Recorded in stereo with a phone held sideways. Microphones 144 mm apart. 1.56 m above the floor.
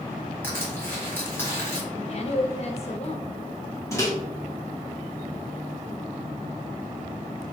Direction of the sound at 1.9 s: 45° left (ahead or behind).